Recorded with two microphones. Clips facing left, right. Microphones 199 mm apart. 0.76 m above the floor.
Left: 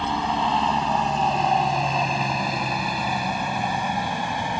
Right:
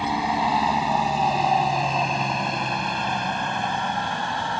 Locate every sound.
0.0 s a helicopter: 10° right (ahead or behind); by 4.6 s 15° left (ahead or behind)